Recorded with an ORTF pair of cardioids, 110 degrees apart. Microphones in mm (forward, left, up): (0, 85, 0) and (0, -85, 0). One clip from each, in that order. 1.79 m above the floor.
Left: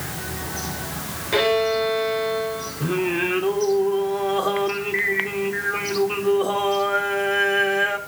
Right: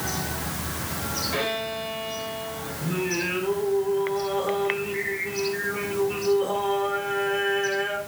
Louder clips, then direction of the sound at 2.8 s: Left 4 dB; 55° left.